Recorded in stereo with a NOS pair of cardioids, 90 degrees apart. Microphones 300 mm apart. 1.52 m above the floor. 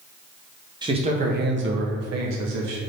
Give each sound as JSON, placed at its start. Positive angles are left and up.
{"t": 0.8, "sound": "a man speaking", "azimuth_deg": -15, "distance_m": 1.0}